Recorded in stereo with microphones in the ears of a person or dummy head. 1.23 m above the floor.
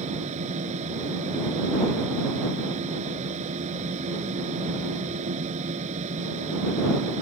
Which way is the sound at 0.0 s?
45° right (ahead or behind).